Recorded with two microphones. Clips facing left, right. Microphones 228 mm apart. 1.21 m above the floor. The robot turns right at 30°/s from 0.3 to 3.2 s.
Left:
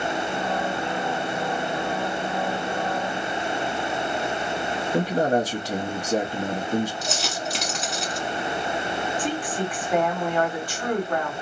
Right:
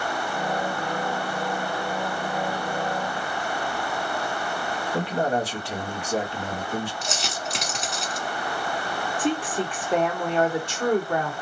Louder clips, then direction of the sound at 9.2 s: Right 2 dB; 25° right (ahead or behind).